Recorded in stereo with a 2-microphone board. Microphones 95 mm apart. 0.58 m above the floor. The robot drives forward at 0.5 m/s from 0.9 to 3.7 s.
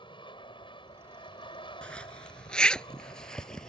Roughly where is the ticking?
I don't hear ticking.